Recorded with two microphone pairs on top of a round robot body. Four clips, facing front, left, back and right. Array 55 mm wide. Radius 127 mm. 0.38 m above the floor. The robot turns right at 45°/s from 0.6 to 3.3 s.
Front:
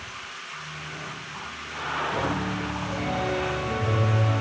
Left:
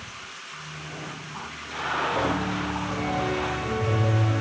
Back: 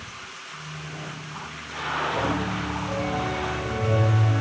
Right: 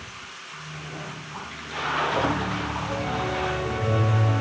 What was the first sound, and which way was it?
A piano, 10° right.